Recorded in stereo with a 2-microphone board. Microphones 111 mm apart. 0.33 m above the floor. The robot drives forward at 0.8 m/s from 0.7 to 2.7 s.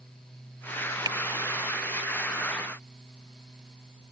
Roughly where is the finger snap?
Right.